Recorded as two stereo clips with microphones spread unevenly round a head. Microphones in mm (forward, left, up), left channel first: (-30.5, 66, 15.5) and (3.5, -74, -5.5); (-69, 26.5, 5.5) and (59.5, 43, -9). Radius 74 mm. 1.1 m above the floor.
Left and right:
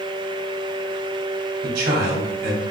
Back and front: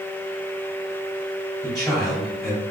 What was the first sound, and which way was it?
A man speaking, 85° right.